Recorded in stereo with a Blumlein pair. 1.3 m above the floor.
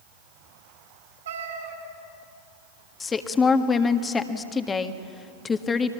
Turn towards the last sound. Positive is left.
turn(degrees=15)